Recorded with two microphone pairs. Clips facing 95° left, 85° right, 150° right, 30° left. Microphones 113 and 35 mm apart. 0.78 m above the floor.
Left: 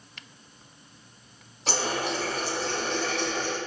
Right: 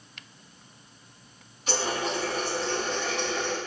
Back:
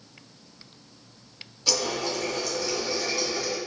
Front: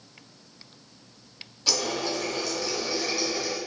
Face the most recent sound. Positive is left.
turn(degrees=115)